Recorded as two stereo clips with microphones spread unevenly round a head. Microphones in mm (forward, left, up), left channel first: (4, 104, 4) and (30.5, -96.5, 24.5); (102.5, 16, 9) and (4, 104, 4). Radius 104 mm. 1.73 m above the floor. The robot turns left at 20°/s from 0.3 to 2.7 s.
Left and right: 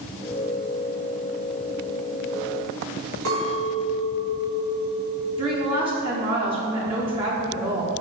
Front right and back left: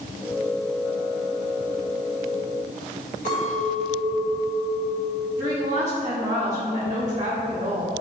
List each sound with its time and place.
3.2 s a clink: 80° right, 2 m
5.4 s a woman speaking: 145° right, 1.0 m